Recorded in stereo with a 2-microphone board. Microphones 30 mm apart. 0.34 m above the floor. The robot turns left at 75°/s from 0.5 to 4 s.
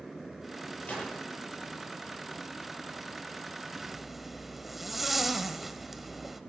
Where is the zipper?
20° right (ahead or behind), 0.7 m; by 6.4 s 5° right (ahead or behind), 0.7 m.